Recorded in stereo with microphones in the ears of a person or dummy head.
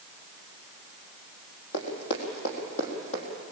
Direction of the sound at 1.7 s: 65° left (ahead or behind).